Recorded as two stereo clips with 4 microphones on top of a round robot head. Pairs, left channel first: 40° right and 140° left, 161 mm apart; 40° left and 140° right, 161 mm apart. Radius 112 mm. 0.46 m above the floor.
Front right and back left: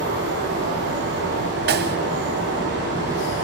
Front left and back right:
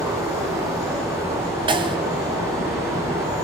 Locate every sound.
0.0 s running water: 145° left, 5.5 m
1.7 s a snare drum: 155° left, 1.9 m